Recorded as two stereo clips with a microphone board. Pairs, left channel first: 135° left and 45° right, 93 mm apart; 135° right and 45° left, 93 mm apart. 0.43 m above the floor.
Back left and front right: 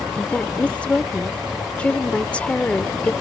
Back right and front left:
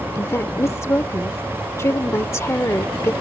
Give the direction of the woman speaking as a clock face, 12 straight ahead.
5 o'clock.